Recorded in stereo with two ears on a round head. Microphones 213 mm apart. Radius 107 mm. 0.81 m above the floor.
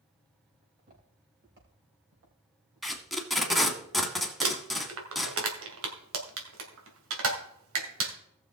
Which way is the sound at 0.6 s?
35° right (ahead or behind).